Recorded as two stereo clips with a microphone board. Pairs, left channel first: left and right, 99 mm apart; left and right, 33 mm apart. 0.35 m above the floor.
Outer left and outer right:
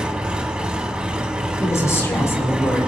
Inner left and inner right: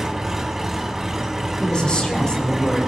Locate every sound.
0.0 s an engine running: 10° right (ahead or behind), 1.8 m
1.6 s a woman speaking: 30° left (ahead or behind), 5 m